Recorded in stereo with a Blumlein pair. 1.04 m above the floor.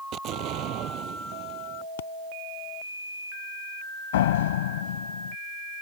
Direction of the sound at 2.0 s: 60° left.